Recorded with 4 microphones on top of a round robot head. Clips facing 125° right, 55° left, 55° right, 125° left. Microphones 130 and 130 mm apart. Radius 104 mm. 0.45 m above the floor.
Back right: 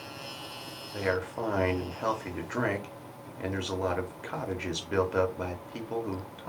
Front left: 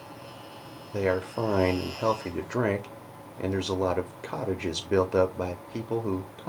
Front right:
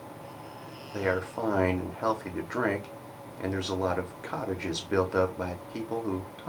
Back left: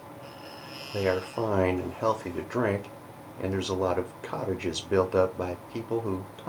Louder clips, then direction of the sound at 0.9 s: Front left 4 dB, back left 2 dB; 65° left.